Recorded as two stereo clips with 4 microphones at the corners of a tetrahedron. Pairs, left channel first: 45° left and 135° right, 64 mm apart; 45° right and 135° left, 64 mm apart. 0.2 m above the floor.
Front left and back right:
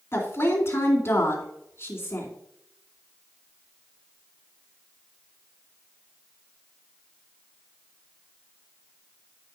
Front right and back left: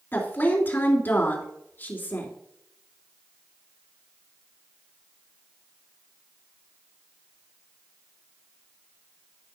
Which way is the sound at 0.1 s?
5° left.